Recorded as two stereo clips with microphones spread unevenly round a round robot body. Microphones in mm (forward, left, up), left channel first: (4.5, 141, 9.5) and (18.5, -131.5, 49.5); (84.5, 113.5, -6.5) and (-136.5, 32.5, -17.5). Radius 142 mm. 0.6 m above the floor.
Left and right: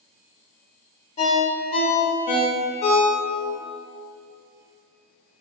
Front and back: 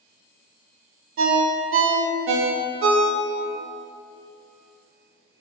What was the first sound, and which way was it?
A ringtone, 165° left.